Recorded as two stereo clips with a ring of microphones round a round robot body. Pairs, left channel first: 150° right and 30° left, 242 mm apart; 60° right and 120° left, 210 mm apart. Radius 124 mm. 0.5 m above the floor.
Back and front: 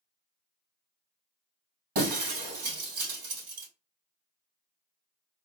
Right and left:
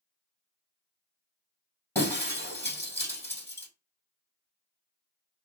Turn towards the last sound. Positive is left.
turn(degrees=20)